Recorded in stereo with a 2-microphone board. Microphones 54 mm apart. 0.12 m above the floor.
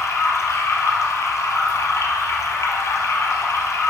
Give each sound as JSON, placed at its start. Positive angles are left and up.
{"t": 0.0, "sound": "running water", "side_deg": 65, "distance_m": 1.3}